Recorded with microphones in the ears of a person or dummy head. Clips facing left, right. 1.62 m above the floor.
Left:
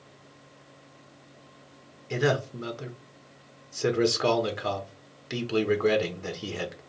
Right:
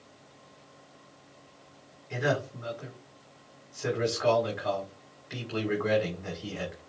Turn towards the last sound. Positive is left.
turn(degrees=55)  # may be behind; listen again after turning